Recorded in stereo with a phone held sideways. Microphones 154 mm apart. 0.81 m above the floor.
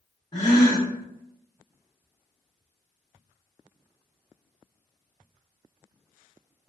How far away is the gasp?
About 1.0 m.